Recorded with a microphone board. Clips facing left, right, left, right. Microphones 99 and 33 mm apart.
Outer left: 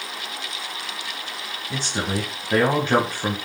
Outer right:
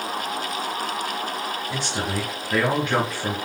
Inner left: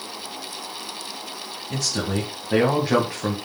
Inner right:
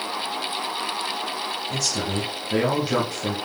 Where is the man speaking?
35° left (ahead or behind), 1.9 m.